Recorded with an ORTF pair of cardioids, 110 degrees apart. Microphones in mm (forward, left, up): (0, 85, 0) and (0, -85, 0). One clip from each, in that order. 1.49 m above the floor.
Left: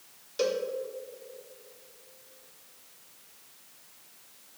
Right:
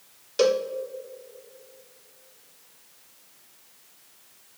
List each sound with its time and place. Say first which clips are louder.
0.4 s a cowbell: right 7 dB; 35° right, 0.6 m